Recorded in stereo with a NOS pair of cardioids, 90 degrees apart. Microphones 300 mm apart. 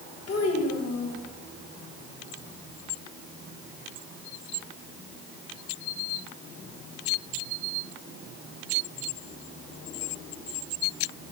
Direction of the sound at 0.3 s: 55° left.